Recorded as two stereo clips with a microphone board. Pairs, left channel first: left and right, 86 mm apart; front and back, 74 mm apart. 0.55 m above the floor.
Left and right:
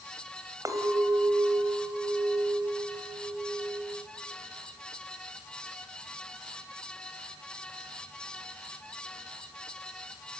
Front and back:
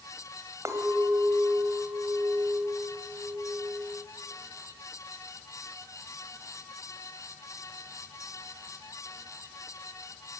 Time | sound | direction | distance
0.7 | a clink | 135° right | 2.5 m